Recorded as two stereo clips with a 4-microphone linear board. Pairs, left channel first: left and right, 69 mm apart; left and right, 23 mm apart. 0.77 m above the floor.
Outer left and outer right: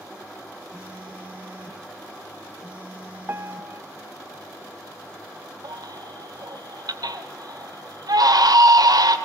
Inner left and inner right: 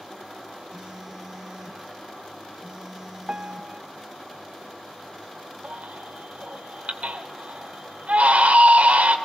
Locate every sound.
0.7 s a phone buzzing: 20° right (ahead or behind), 3 m
3.3 s a piano: 35° right (ahead or behind), 0.7 m
5.6 s a baby crying: 80° right, 2.5 m